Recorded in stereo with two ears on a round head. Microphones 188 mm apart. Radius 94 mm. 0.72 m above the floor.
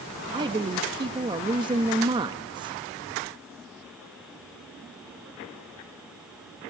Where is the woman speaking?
20° right (ahead or behind), 0.5 m.